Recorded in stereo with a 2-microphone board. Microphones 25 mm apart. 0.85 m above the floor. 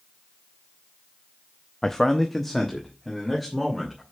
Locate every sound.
1.8 s a man speaking: 20° left (ahead or behind), 0.5 m; by 4.0 s 5° left (ahead or behind), 2.5 m